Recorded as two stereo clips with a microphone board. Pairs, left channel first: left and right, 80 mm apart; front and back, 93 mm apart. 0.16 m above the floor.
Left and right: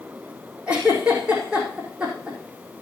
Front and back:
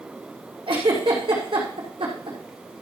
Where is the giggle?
165° right, 4.5 m.